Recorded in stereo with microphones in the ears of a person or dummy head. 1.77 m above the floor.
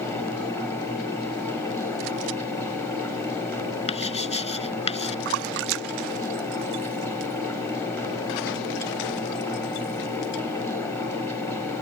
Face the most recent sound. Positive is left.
turn(degrees=-70)  # may be behind; listen again after turning